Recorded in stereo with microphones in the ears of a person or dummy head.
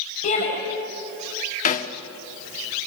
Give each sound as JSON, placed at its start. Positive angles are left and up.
{"t": 0.2, "sound": "a shout", "side_deg": 35, "distance_m": 6.0}
{"t": 1.6, "sound": "a snare drum", "side_deg": 35, "distance_m": 1.4}